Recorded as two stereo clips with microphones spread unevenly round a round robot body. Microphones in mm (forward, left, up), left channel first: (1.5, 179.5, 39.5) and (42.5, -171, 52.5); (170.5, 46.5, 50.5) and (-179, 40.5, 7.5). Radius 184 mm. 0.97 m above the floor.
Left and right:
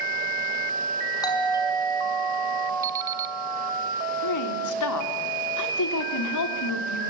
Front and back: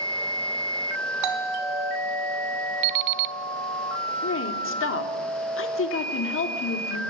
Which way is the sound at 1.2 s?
175° left.